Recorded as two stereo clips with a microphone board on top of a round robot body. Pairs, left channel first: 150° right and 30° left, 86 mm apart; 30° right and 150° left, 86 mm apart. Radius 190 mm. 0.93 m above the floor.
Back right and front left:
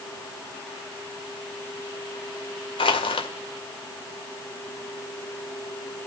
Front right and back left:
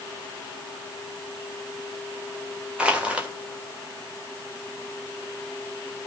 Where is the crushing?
135° right, 2 m.